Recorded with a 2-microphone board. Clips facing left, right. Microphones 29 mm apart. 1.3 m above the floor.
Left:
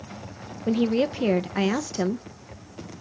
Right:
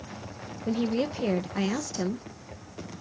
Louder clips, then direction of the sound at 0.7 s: Left 5 dB; 20° left (ahead or behind).